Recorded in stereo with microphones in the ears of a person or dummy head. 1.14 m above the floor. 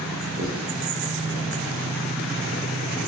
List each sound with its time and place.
0.4 s writing: 45° right (ahead or behind), 0.6 m